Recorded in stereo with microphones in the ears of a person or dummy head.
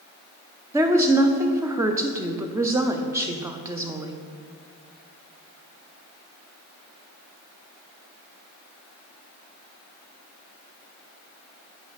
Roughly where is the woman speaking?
Centre.